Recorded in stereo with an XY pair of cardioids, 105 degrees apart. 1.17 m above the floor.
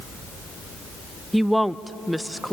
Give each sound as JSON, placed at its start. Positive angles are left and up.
{"t": 1.3, "sound": "a woman speaking", "azimuth_deg": 0, "distance_m": 0.6}